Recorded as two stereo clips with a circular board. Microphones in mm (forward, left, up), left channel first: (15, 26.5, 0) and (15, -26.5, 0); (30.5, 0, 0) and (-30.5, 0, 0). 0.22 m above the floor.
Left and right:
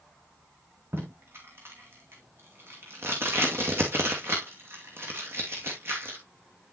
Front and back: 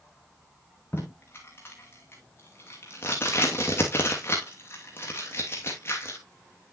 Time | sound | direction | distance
0.9 | tape being pulled | 50° right | 2.5 m